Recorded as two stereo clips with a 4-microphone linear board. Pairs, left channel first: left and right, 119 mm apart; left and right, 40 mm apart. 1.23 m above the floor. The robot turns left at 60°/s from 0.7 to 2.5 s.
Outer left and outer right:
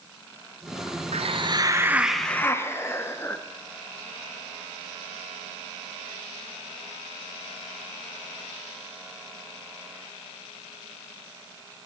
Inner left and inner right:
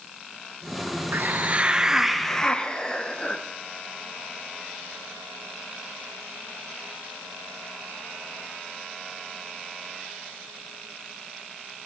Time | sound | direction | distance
1.1 | a hiss | 120° right | 0.5 m